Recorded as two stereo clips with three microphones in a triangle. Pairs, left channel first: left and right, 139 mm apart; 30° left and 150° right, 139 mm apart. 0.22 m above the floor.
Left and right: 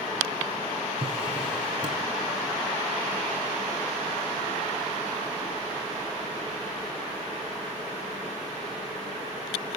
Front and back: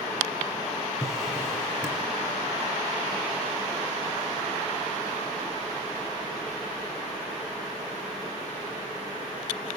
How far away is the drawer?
About 1.1 m.